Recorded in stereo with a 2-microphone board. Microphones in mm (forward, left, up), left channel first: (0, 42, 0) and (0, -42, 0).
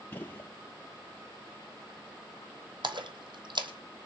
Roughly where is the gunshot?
Left.